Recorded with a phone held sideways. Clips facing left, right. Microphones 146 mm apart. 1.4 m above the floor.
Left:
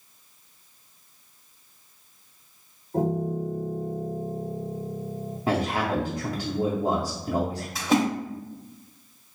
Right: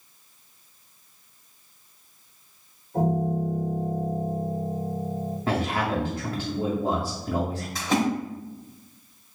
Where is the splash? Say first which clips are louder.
Left 2 dB; 10° left (ahead or behind), 1.7 m.